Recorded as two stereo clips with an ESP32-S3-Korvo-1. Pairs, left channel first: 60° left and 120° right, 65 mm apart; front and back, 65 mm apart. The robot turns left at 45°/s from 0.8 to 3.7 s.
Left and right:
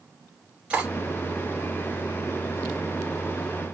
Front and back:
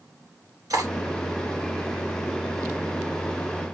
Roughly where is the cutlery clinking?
Behind.